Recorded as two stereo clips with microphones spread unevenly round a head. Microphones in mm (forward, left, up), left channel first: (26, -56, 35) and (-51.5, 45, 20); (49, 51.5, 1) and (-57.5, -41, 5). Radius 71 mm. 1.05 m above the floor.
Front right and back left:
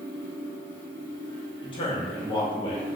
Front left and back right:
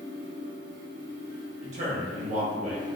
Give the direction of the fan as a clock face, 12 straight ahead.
4 o'clock.